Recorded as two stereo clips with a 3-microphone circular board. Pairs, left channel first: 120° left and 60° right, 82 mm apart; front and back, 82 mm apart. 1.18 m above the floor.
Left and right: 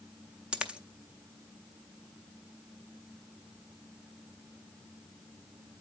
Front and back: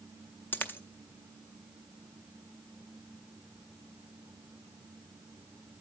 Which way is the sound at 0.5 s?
5° left.